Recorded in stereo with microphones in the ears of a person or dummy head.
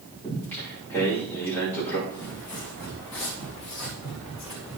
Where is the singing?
5° left (ahead or behind), 5.5 m.